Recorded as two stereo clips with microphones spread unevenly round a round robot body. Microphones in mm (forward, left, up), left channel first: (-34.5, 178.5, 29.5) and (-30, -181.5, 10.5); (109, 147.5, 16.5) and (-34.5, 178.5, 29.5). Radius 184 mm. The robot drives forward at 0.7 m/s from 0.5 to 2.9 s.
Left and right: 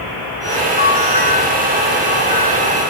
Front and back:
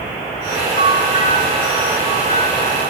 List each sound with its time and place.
0.8 s a bell: 20° left, 6.5 m; by 2.9 s 25° left, 5 m